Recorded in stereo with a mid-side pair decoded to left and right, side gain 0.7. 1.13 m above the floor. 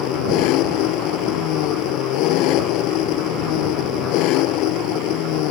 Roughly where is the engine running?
Ahead left.